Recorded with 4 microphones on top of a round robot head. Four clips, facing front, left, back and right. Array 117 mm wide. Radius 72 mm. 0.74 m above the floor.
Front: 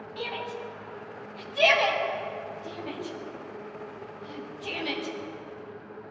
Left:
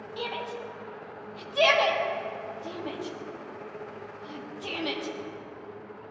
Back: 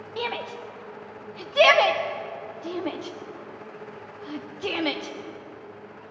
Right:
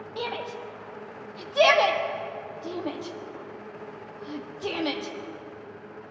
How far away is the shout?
About 1.4 m.